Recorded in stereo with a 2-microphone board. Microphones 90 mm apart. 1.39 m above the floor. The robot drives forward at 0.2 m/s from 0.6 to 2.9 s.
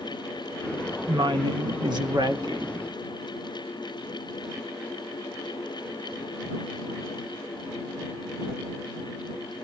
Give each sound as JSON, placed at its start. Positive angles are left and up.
{"t": 1.1, "sound": "a woman speaking", "side_deg": -60, "distance_m": 1.3}